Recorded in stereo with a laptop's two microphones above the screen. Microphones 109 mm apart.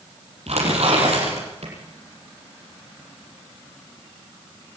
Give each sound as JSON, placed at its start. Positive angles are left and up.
{"t": 0.5, "sound": "tearing paper", "side_deg": -80, "distance_m": 7.0}